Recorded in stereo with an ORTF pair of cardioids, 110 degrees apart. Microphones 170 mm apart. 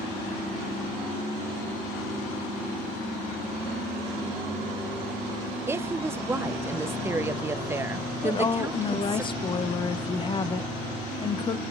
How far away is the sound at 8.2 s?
About 0.8 m.